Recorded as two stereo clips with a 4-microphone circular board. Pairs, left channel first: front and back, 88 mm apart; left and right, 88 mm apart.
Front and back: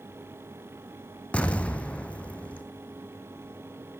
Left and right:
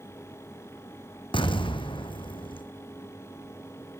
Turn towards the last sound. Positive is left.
turn(degrees=75)